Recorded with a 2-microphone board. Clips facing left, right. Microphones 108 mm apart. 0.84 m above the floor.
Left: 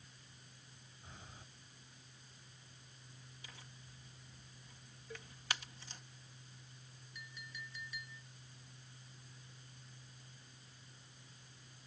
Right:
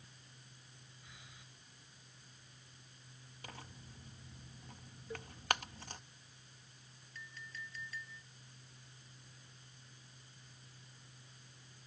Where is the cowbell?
20° right (ahead or behind).